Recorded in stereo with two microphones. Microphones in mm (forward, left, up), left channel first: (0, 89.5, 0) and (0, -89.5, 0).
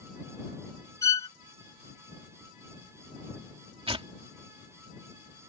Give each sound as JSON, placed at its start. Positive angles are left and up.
{"t": 1.0, "sound": "a violin", "side_deg": -80}
{"t": 3.9, "sound": "tearing paper", "side_deg": -30}